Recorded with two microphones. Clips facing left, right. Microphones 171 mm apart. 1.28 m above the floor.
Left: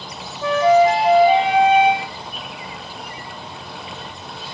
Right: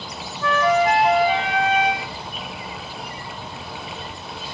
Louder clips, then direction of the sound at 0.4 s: Left 5 dB; 25° left (ahead or behind).